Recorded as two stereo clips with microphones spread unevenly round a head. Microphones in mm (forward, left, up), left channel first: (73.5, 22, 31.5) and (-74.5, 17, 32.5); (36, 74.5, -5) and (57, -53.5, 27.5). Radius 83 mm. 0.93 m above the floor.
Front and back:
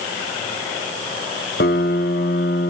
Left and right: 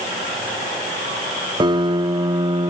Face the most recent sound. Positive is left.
turn(degrees=-30)